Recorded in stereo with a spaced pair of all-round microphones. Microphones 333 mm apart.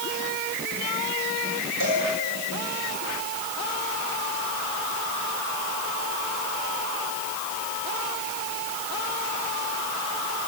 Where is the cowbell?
65° right (ahead or behind), 9.5 m.